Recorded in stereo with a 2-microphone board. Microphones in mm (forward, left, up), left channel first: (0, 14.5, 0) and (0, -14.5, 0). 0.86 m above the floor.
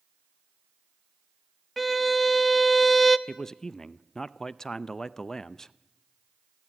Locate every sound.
1.8 s a violin: centre (ahead or behind), 0.7 m
3.3 s a man speaking: 15° left (ahead or behind), 0.5 m